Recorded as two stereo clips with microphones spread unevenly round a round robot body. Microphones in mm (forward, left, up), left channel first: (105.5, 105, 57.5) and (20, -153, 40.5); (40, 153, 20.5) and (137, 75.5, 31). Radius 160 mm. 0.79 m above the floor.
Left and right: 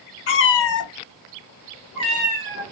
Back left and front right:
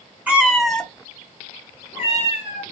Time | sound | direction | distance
0.3 | a cat meowing | 35° left | 0.7 m